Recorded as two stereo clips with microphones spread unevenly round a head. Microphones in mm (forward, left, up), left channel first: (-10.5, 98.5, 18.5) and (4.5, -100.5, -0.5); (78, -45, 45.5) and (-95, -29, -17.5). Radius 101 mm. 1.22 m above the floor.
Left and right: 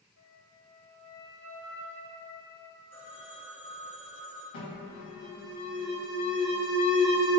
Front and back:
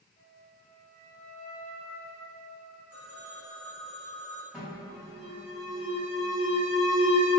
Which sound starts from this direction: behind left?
A phone ringing, at 2.9 s.